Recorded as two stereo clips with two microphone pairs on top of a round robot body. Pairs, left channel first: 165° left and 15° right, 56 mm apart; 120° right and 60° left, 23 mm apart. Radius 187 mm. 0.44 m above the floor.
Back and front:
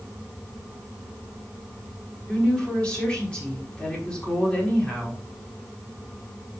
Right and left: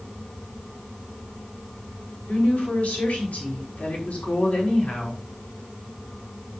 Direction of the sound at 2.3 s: 130° right.